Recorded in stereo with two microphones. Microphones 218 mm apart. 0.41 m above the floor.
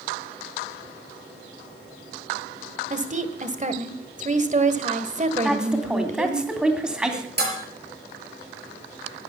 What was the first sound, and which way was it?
A woman speaking, 35° right (ahead or behind).